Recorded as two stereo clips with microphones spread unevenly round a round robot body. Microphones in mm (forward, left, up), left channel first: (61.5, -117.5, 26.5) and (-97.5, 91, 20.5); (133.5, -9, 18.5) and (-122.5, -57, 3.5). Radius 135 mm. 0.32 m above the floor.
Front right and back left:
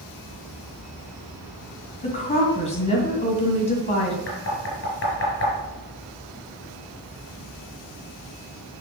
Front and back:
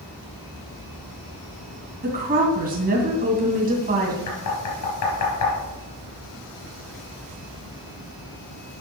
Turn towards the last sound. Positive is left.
turn(degrees=-5)